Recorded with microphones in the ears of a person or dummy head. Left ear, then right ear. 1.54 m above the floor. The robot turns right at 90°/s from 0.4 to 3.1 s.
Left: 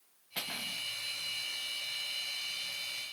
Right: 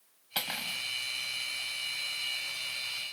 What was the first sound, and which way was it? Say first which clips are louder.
Cutlery clinking: right 4 dB; 70° right.